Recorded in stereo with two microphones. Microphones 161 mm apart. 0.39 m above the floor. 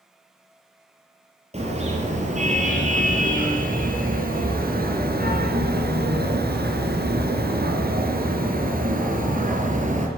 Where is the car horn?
40° right (ahead or behind), 5 m; by 10.1 s 50° right (ahead or behind), 4.5 m.